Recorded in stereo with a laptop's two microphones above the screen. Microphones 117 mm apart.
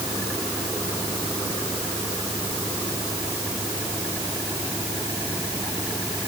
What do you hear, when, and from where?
Only background noise.